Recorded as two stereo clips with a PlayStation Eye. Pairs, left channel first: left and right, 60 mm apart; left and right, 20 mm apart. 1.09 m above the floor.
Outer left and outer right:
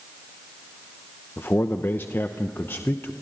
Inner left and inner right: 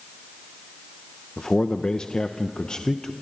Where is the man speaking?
40° left (ahead or behind), 0.7 m.